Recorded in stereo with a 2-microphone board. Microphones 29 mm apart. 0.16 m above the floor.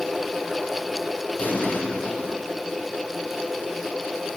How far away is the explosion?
About 6 m.